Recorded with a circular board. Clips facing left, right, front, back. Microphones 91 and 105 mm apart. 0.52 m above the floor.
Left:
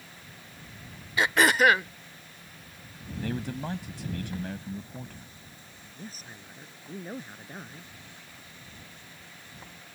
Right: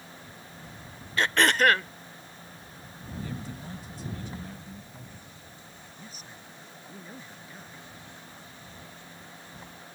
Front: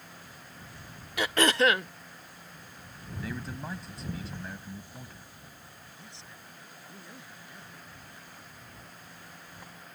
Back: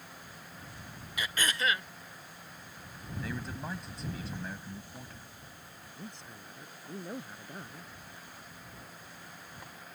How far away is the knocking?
No knocking in this recording.